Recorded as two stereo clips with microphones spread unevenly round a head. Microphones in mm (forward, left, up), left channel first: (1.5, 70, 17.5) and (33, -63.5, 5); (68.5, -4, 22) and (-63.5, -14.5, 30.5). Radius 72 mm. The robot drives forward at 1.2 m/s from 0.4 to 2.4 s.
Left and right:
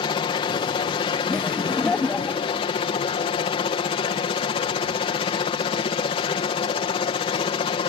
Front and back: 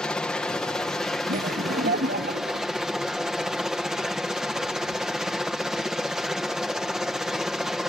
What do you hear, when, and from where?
0.0 s a helicopter: 80° left; by 7.9 s 95° left
1.3 s laughter: 175° right